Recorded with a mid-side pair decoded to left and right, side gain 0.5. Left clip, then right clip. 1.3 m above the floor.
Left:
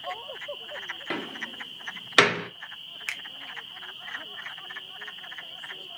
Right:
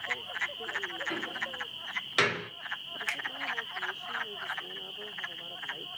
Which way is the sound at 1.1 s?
55° left.